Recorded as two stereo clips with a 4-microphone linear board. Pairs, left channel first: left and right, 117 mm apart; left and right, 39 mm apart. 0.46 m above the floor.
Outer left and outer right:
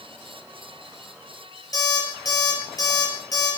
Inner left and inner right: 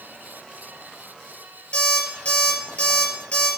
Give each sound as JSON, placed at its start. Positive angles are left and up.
{"t": 1.7, "sound": "an alarm clock", "side_deg": 30, "distance_m": 4.0}